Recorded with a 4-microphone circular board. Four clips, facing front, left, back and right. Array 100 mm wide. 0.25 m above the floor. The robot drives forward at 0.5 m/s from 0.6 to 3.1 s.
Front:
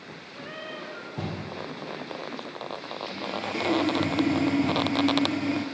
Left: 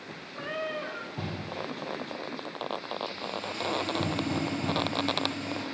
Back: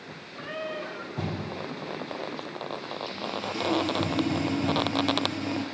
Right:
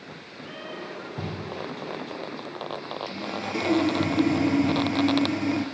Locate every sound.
0.3 s a cat meowing: 90° left, 9.5 m; by 1.1 s 95° left, 9.5 m
3.1 s sawing: 55° right, 5.5 m